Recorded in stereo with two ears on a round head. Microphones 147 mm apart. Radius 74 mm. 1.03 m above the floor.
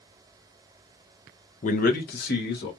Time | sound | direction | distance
1.6 | a man speaking | 45° left (ahead or behind) | 0.7 m